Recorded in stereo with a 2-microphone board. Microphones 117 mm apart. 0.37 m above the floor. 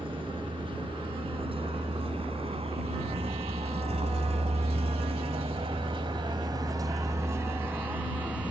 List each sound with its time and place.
0.0 s a vehicle: 45° right (ahead or behind); by 8.5 s 10° right (ahead or behind)